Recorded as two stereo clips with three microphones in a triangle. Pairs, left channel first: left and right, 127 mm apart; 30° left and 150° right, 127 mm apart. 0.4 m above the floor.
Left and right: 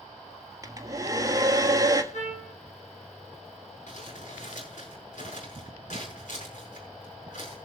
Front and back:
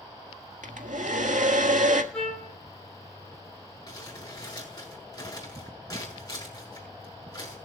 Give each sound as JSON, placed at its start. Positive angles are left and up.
{"t": 0.6, "sound": "a hair dryer", "azimuth_deg": -155, "distance_m": 1.4}
{"t": 2.1, "sound": "a trumpet", "azimuth_deg": 110, "distance_m": 5.5}
{"t": 3.9, "sound": "crumpling", "azimuth_deg": 90, "distance_m": 6.0}